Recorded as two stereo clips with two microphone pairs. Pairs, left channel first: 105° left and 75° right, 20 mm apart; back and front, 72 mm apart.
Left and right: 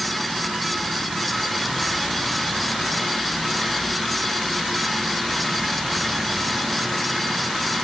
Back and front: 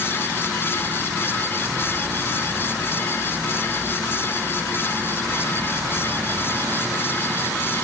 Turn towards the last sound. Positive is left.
No sound to turn to.